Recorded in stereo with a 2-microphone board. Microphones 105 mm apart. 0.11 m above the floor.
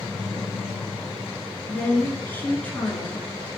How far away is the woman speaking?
About 1.2 m.